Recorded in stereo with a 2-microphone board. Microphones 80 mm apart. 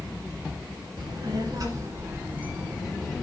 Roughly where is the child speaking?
Right.